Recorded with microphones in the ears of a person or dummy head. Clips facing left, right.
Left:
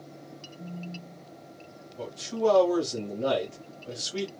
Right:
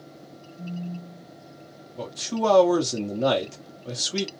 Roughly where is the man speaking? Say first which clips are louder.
Right 1 dB; right.